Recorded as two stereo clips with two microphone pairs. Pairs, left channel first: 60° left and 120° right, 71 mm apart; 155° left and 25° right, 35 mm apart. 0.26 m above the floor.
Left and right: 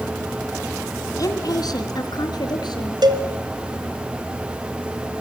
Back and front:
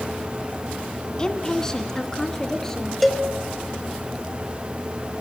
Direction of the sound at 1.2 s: 85° left.